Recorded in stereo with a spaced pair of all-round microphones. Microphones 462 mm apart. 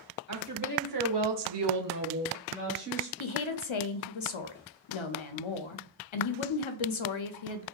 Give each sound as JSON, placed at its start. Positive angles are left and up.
{"t": 0.3, "sound": "a woman speaking", "side_deg": -35, "distance_m": 1.2}
{"t": 3.2, "sound": "a woman speaking", "side_deg": 85, "distance_m": 0.5}